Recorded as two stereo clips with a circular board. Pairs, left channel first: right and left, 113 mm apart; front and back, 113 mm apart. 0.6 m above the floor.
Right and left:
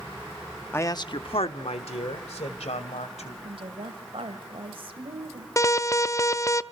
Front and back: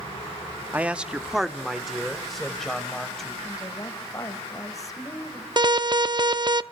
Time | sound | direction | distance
0.7 | a man speaking | 125° right | 0.6 m
3.4 | a woman speaking | 60° left | 3 m
5.6 | an alarm | 145° right | 0.5 m